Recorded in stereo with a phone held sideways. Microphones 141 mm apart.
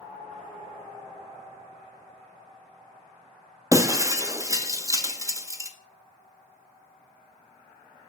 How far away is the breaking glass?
About 0.5 m.